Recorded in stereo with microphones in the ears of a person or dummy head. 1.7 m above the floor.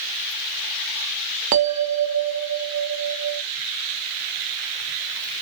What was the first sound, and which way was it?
A bell, 45° right (ahead or behind).